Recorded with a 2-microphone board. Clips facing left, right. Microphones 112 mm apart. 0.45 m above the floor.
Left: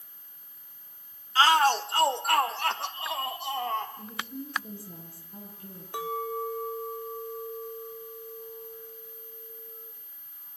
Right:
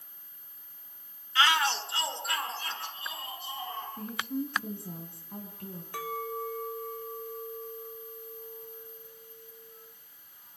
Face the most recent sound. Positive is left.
turn(degrees=20)  # may be behind; listen again after turning